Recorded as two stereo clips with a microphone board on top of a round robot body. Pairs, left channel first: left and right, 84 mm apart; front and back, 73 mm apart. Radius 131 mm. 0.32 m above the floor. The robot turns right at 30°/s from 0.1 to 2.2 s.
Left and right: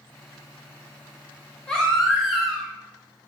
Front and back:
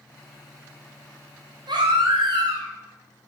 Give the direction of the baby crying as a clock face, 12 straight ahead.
6 o'clock.